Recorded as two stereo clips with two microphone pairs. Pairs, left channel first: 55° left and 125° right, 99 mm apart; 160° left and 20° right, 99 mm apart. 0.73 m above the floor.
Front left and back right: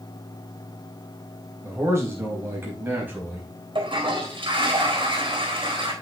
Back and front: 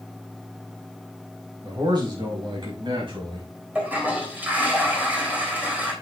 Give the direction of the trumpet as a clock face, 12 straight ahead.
I don't hear a trumpet.